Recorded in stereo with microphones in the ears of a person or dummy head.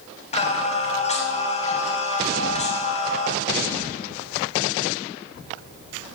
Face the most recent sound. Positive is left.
turn(degrees=35)  # may be behind; listen again after turning